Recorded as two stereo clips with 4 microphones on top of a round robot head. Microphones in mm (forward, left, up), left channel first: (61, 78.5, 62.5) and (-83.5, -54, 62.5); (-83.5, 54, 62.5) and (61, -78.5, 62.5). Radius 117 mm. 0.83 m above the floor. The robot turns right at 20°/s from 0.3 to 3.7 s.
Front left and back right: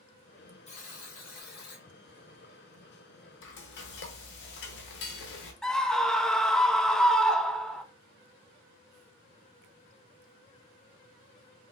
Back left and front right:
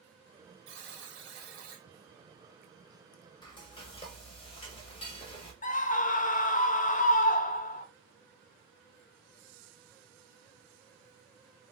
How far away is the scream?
About 0.6 m.